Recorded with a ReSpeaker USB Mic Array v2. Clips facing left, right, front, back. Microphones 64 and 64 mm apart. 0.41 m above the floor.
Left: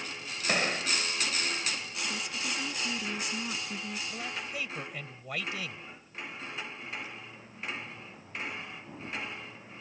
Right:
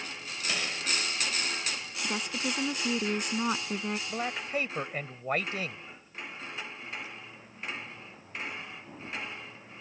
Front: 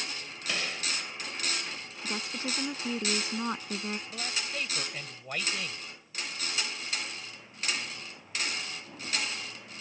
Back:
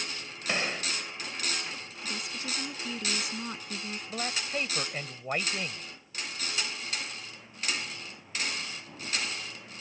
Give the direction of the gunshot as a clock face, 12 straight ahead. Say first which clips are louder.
Left 5 dB, back 3 dB; 8 o'clock.